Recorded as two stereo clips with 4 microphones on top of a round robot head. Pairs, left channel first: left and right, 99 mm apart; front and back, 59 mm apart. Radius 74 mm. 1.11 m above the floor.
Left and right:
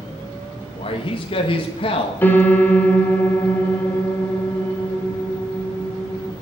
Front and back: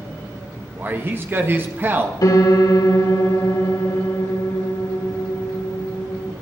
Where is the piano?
20° left, 2 m.